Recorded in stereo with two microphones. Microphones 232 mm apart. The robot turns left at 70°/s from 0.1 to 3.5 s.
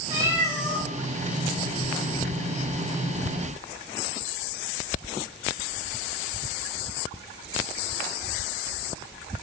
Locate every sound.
0.1 s a cat meowing: 155° right, 5 m; by 0.9 s 150° left, 5 m